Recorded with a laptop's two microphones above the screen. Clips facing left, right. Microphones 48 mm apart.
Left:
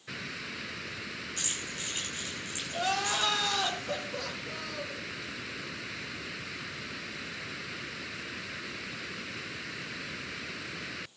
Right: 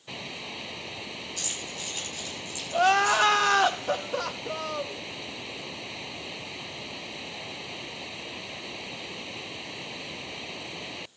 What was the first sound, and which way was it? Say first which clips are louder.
Keys jangling: right 1 dB; 35° left (ahead or behind).